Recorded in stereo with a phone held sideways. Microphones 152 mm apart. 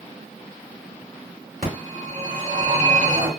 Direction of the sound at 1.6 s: 70° right (ahead or behind).